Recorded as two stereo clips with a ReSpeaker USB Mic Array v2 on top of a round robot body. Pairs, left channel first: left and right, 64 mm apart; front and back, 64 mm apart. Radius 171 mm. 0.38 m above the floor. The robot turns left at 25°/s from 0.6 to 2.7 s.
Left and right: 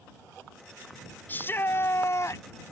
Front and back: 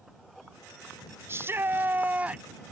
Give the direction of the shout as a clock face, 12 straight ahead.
7 o'clock.